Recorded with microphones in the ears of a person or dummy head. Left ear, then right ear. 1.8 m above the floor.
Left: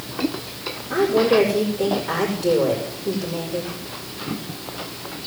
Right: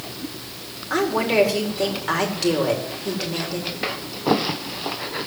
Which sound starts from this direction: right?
A woman speaking, at 0.9 s.